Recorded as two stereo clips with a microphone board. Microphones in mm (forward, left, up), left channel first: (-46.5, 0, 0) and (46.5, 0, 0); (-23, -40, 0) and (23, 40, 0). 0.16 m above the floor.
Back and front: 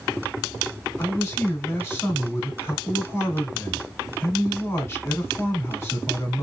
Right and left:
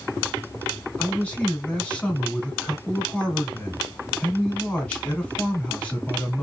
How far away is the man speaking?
About 1.5 m.